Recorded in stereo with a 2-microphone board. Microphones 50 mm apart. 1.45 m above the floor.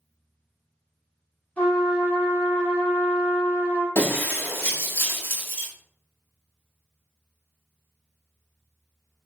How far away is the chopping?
No chopping in this recording.